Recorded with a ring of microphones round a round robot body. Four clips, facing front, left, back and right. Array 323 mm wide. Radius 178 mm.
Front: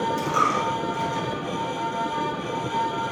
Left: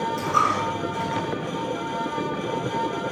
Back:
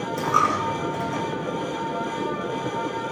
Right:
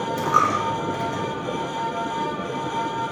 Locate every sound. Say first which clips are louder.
0.2 s a dropped coin: right 3 dB, back 5 dB; 130° right, 1.9 m